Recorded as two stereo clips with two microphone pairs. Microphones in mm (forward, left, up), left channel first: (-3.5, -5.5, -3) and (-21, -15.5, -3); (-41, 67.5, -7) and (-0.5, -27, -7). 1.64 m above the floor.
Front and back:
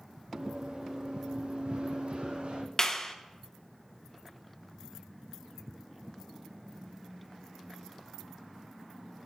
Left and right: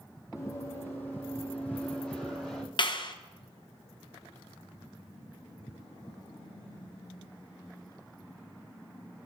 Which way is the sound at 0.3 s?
170° left.